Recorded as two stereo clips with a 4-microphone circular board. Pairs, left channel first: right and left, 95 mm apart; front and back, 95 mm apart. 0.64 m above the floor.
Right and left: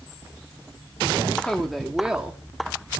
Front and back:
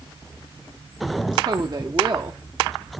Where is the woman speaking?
165° right, 1.5 m; by 2.4 s 155° left, 1.4 m.